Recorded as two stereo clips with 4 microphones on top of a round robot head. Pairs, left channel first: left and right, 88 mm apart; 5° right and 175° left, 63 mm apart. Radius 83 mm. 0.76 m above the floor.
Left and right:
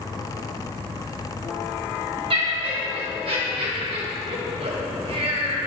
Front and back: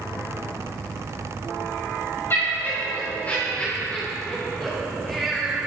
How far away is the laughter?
About 4 m.